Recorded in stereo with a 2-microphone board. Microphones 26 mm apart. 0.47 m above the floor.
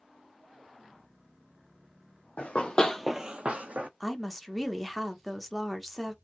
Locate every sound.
2.4 s running footsteps: 55° left (ahead or behind), 1.1 m; by 3.9 s 70° right (ahead or behind), 1.2 m
4.0 s a woman speaking: centre (ahead or behind), 0.7 m